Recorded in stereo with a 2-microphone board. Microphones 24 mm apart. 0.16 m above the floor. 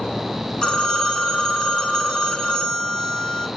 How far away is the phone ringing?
About 0.9 m.